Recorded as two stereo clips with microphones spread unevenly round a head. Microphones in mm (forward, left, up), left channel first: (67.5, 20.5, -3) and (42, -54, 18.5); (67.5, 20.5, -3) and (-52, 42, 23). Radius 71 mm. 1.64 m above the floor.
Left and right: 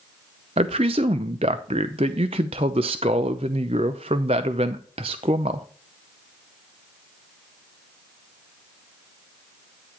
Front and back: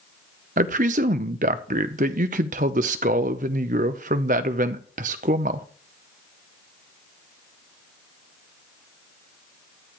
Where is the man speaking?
150° right, 0.7 m.